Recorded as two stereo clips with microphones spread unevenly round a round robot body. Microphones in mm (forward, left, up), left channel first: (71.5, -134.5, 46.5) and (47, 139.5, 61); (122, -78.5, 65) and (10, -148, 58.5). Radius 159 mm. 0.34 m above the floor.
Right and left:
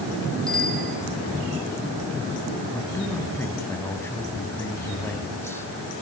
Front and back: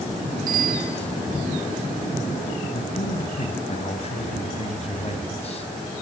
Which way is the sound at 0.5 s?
175° right.